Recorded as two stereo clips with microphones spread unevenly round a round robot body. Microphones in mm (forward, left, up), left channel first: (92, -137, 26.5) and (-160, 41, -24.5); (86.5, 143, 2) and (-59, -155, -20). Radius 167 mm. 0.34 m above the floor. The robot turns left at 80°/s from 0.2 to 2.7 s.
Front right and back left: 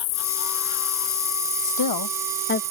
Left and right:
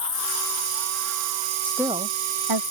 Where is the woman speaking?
20° right; by 2.6 s 100° right.